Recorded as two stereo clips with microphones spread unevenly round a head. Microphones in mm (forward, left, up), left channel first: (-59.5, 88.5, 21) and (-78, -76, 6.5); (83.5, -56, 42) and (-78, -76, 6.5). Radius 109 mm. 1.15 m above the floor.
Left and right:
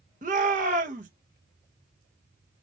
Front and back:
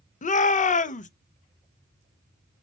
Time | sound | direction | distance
0.2 | a shout | 35° right | 0.8 m